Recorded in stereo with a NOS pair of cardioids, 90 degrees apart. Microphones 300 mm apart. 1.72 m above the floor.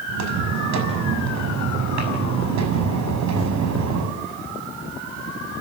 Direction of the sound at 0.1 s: 70° right.